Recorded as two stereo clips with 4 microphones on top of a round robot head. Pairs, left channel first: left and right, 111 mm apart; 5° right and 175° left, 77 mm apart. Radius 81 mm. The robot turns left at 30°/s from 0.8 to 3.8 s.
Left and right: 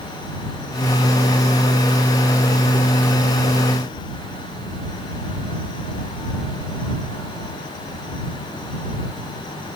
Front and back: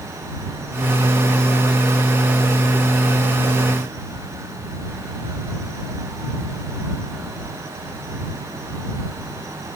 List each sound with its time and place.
Only background noise.